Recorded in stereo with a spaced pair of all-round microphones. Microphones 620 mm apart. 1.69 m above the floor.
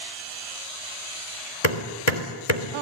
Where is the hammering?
65° left (ahead or behind), 3 m.